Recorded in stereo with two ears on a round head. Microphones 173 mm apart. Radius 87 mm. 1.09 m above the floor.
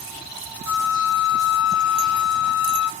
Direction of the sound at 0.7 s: 70° left (ahead or behind).